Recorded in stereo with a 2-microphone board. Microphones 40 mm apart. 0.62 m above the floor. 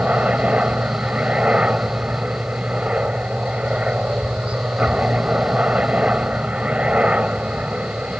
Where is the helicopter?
30° right (ahead or behind).